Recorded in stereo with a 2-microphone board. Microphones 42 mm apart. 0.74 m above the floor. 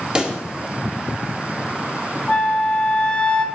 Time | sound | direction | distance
0.1 | a pop | 20° right (ahead or behind) | 1.5 m
2.3 | a flute | 30° left (ahead or behind) | 1.4 m